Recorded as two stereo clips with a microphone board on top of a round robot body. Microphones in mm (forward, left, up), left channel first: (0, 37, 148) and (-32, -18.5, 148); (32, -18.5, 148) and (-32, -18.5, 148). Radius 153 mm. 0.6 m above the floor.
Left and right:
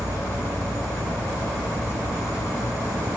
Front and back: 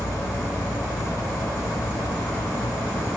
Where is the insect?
65° right, 1.0 m.